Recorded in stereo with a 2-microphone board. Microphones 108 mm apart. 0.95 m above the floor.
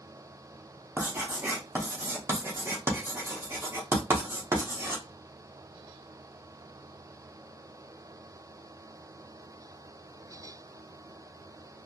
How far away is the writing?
About 0.9 m.